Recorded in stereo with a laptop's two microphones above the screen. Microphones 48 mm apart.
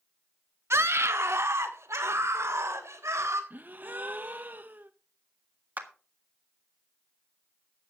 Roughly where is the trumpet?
I don't hear a trumpet.